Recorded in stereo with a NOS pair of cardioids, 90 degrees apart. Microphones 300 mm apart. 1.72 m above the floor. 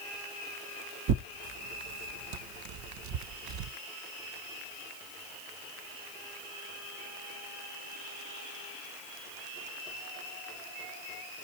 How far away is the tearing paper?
About 0.7 m.